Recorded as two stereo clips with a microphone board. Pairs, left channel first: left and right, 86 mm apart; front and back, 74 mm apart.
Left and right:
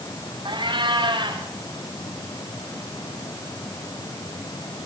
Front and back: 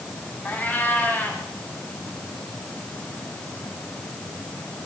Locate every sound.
0.5 s a cat meowing: 70° right, 6 m